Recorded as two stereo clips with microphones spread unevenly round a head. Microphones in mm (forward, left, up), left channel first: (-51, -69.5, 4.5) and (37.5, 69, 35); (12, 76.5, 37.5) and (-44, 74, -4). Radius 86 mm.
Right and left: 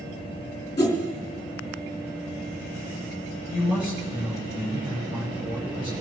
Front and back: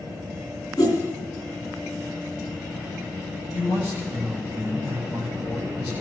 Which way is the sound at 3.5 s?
30° right.